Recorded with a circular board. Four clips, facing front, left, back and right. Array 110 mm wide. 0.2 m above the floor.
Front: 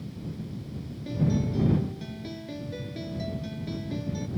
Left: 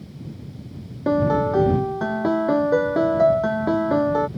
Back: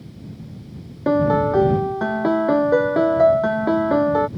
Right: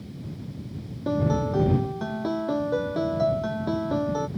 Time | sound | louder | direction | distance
1.1 | a piano | left 6 dB, back 12 dB | 155° left | ?